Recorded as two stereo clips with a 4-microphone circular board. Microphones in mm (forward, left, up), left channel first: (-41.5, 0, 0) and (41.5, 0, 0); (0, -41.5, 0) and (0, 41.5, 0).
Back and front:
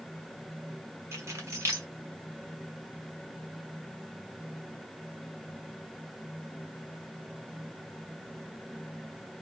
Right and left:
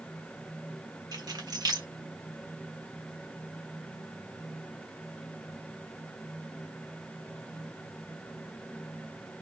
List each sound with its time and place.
1.1 s keys jangling: 55° left, 1.1 m